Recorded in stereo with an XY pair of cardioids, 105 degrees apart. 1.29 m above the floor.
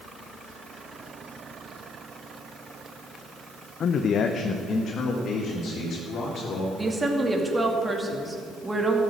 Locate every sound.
3.8 s a man speaking: 60° left, 0.6 m; by 6.7 s 55° left, 3.5 m
6.8 s a woman speaking: 20° right, 2.5 m